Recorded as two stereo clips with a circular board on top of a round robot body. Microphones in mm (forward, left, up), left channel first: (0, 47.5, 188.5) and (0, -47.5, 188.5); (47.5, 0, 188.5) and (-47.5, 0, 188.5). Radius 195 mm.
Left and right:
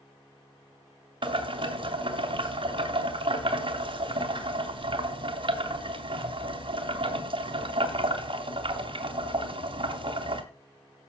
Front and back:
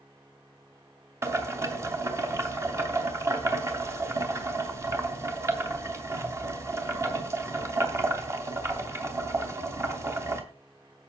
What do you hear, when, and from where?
1.2 s boiling: 120° right, 3 m